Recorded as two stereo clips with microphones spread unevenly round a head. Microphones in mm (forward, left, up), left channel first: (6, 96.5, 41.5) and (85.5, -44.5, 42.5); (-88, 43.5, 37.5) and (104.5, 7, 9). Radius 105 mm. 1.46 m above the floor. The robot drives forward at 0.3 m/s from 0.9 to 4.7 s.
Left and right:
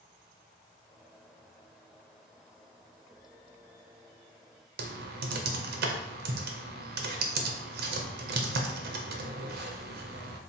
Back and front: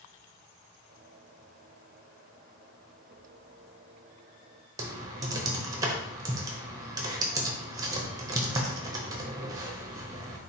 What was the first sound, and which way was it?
Typing on a keyboard, 80° right.